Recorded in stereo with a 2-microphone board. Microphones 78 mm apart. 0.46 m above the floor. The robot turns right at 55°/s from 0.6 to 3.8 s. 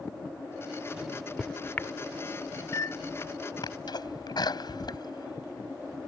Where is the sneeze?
70° left (ahead or behind); by 6.1 s 65° left (ahead or behind).